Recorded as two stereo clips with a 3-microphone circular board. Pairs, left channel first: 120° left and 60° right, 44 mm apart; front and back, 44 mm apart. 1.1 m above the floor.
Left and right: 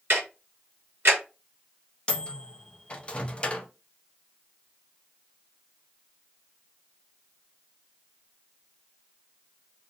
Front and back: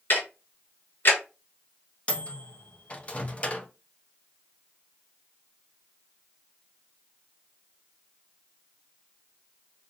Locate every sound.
0.1 s ticking: 25° right, 2.5 m
2.1 s a microwave: 55° left, 0.5 m